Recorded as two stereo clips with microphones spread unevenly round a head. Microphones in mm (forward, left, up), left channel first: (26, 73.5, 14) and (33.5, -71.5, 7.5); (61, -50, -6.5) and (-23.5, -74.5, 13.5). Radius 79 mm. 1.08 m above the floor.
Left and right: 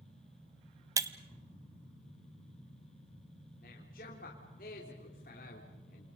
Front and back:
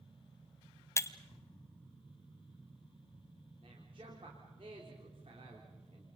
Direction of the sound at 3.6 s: 135° left.